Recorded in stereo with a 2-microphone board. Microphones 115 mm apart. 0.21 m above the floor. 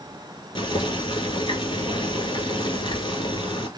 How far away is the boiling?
About 1.0 m.